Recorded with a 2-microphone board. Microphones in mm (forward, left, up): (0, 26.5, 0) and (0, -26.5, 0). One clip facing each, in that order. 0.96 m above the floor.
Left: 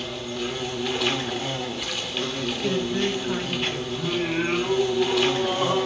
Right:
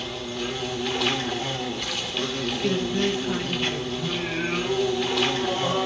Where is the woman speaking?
5° left (ahead or behind), 0.9 m.